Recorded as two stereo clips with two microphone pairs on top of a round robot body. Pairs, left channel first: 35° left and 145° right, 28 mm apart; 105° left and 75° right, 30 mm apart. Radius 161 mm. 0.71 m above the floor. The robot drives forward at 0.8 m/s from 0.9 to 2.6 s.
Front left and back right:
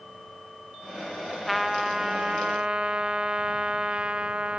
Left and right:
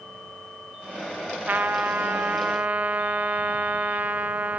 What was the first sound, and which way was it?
A trumpet, 55° right.